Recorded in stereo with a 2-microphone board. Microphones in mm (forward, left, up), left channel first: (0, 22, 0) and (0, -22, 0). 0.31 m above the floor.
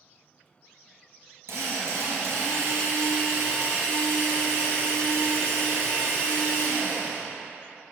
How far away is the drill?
About 3 m.